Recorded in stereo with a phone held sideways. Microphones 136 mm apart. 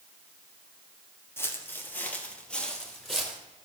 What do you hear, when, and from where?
1.4 s footsteps: 20° left (ahead or behind), 1.6 m; by 3.4 s centre (ahead or behind), 2 m